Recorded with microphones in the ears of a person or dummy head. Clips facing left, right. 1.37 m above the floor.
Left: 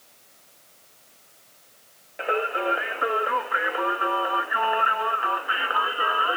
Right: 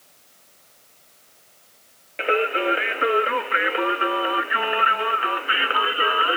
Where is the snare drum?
No snare drum in this recording.